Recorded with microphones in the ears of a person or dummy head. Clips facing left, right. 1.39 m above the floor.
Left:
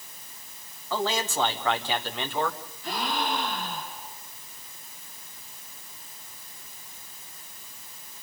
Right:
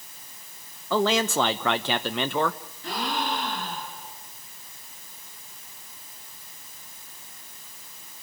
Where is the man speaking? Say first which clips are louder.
Right 5 dB; 55° right (ahead or behind), 1.0 m.